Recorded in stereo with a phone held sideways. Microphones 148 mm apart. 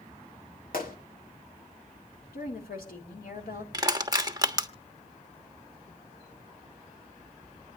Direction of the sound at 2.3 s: 80° left.